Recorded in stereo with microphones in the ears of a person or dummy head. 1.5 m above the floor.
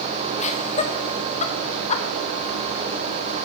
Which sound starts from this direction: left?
Laughter, at 0.4 s.